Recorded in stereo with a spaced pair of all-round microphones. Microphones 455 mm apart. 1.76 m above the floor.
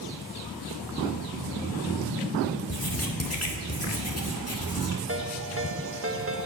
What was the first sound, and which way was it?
Writing, 30° left (ahead or behind).